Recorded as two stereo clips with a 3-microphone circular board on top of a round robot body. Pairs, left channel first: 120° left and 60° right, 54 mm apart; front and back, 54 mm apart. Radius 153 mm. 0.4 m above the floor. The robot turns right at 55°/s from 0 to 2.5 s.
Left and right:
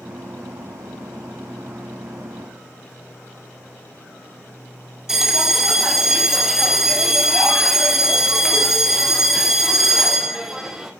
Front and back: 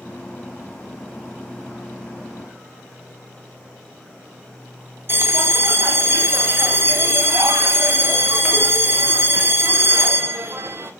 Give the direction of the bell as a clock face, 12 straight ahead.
5 o'clock.